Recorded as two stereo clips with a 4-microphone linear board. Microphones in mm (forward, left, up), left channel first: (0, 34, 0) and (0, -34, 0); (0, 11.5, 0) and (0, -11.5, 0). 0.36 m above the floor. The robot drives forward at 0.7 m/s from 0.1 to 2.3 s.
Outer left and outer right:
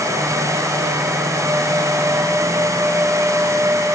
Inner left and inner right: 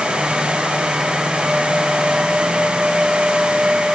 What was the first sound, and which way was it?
Only background noise.